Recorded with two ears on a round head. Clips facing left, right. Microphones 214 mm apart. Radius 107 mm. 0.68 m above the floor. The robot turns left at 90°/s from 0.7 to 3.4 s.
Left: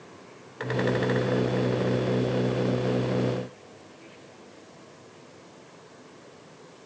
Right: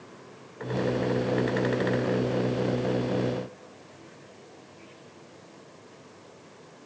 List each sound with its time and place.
Only background noise.